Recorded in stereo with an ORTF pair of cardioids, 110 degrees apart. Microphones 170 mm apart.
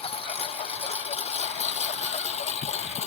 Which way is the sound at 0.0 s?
35° left.